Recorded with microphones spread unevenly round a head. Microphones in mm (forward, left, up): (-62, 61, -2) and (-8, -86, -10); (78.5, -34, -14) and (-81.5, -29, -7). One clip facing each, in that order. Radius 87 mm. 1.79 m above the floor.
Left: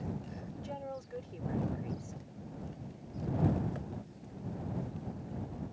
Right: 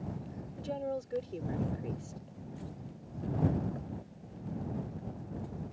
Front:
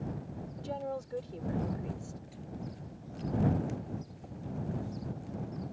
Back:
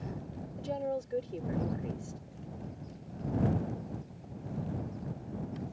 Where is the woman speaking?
120° right.